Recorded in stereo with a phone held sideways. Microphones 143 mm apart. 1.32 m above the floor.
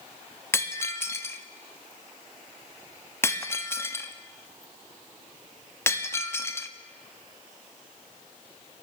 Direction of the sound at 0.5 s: 15° left (ahead or behind).